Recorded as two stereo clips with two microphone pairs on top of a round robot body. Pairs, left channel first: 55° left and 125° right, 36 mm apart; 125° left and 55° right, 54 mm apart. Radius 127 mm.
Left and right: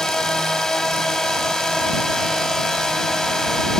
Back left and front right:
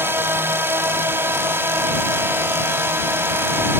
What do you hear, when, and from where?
0.0 s a drone: 15° right